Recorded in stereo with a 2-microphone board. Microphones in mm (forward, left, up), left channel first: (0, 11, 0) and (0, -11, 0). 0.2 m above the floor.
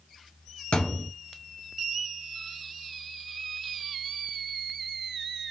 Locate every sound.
0.7 s a thud: 60° left (ahead or behind), 1.2 m